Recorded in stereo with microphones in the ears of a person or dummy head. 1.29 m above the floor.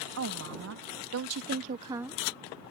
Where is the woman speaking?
75° right (ahead or behind); by 2.2 s centre (ahead or behind).